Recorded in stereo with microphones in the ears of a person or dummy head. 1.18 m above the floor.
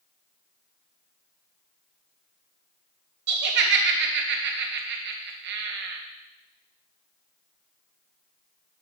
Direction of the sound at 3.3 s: 60° right (ahead or behind).